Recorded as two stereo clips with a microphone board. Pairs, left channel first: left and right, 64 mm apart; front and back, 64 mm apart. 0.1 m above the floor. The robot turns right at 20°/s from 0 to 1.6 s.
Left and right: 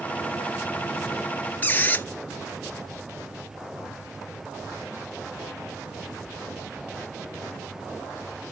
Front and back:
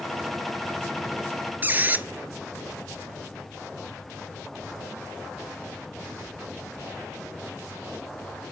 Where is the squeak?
135° left, 0.5 m.